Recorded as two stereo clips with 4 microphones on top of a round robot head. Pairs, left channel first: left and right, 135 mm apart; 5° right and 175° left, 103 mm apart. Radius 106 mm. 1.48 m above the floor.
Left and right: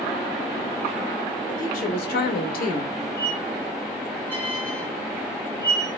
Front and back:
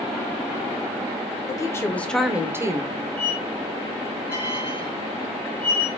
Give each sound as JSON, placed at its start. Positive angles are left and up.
{"t": 1.5, "sound": "a woman speaking", "azimuth_deg": 50, "distance_m": 0.9}
{"t": 3.2, "sound": "a squeak", "azimuth_deg": 165, "distance_m": 0.9}